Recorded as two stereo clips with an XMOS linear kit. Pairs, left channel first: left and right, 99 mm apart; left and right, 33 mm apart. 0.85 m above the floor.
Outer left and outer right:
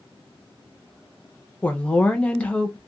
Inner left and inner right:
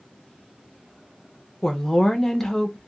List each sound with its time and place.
1.6 s a woman speaking: 10° left (ahead or behind), 0.6 m